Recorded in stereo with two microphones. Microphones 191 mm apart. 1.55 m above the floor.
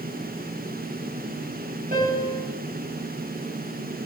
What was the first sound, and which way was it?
A piano, 45° right (ahead or behind).